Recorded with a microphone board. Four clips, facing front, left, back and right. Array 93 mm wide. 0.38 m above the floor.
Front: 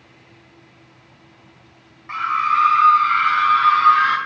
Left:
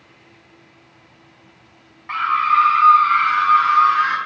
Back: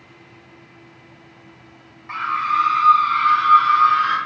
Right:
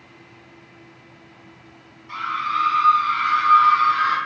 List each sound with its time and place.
2.1 s a scream: 80° left, 1.9 m; by 4.2 s 15° left, 3.5 m